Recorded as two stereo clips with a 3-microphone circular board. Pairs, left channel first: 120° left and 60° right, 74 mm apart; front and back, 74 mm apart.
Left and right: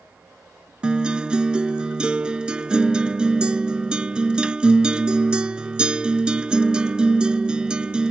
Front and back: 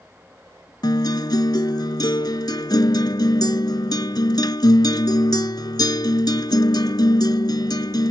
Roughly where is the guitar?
Ahead.